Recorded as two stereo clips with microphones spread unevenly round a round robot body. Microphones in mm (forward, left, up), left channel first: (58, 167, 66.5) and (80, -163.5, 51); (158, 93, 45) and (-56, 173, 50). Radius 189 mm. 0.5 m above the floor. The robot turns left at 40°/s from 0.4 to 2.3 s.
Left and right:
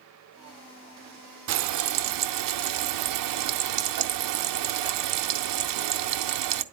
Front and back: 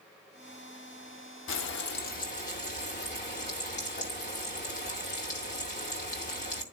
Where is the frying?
45° right, 0.7 m; by 6.6 s 80° right, 0.7 m.